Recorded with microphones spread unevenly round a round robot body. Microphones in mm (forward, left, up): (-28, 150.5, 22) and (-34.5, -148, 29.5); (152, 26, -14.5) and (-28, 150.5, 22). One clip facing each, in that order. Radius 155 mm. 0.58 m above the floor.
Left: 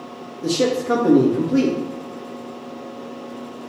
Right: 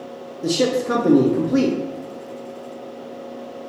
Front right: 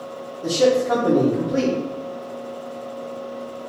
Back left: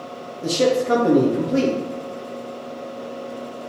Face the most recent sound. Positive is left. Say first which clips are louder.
# even, front right 1 dB
turn(degrees=-165)